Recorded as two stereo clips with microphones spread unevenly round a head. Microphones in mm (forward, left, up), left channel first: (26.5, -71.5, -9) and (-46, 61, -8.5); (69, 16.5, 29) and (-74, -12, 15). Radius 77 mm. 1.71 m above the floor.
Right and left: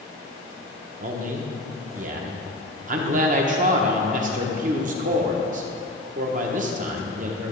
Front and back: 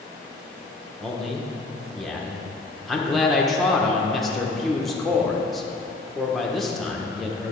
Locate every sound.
1.0 s a man speaking: 95° left, 1.0 m